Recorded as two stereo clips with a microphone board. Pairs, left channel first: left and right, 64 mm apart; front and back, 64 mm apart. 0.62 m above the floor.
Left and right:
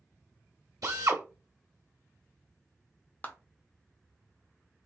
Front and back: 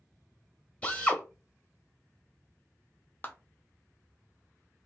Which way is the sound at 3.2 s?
45° left.